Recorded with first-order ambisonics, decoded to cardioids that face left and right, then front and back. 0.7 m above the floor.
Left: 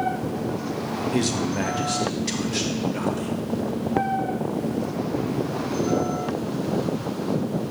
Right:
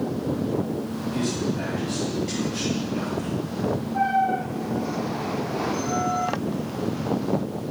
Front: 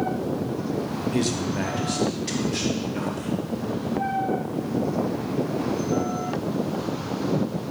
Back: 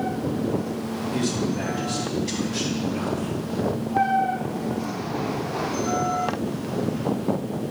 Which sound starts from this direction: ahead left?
A man speaking, at 1.1 s.